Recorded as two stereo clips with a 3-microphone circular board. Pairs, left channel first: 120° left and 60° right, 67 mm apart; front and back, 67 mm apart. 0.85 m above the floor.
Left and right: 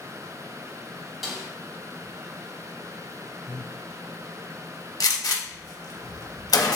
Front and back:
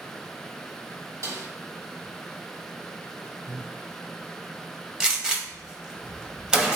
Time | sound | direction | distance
1.2 | a snare drum | 150° right | 1.3 m
3.5 | breathing | 175° right | 0.7 m
5.0 | a gunshot | 100° left | 0.8 m